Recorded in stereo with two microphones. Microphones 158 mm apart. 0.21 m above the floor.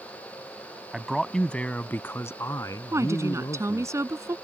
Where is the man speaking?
5° right (ahead or behind); by 3.9 s 25° left (ahead or behind).